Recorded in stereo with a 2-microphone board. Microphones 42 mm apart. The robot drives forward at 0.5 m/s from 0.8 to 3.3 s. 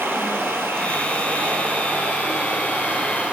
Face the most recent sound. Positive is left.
turn(degrees=-35)  # may be behind; listen again after turning